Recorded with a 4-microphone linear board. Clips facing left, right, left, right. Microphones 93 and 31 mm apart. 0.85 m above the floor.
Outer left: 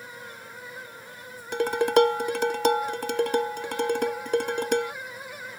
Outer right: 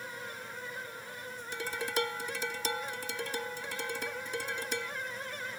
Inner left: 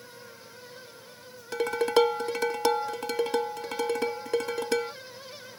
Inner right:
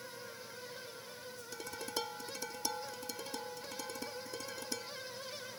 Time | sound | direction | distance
1.5 | dishes clattering | 70° left (ahead or behind) | ?